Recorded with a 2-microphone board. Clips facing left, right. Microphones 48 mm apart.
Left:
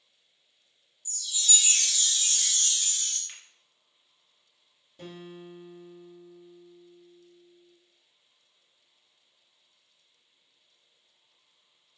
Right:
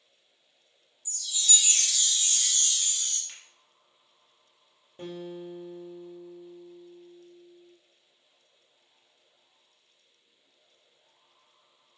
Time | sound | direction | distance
1.1 | a chime | 10° right (ahead or behind) | 0.6 m
3.3 | a finger snap | 15° left (ahead or behind) | 1.7 m
5.0 | a guitar | 35° right (ahead or behind) | 0.8 m